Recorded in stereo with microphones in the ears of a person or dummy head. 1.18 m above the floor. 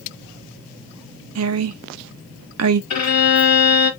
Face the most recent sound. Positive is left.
turn(degrees=35)  # may be behind; listen again after turning